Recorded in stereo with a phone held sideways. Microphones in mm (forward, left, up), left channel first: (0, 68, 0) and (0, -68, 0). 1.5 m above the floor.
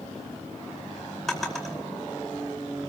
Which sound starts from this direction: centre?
A drawer, at 1.3 s.